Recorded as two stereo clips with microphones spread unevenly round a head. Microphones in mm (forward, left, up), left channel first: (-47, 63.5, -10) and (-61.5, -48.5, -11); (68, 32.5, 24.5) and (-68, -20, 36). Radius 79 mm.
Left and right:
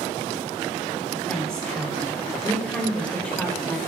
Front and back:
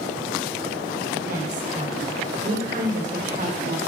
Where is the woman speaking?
165° left, 6 m; by 3.8 s 160° left, 4.5 m.